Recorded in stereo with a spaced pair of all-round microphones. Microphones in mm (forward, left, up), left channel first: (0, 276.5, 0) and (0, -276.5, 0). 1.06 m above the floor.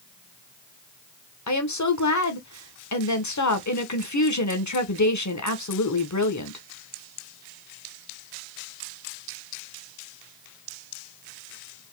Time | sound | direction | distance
1.5 | a woman speaking | 30° left (ahead or behind) | 0.8 m